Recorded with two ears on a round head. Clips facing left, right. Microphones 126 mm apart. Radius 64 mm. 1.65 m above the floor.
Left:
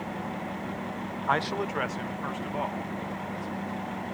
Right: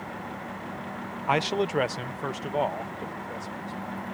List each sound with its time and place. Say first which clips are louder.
1.3 s a man speaking: right 3 dB; 10° right (ahead or behind); by 4.1 s 45° right (ahead or behind)